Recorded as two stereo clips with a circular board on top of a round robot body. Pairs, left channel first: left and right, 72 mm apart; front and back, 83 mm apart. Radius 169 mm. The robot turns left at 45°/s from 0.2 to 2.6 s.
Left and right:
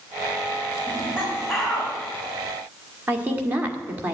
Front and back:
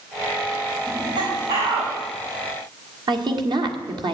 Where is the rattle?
No rattle in this recording.